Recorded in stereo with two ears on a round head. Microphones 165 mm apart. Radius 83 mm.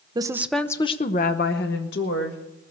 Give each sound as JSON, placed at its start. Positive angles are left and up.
{"t": 0.1, "sound": "a woman speaking", "side_deg": -25, "distance_m": 0.9}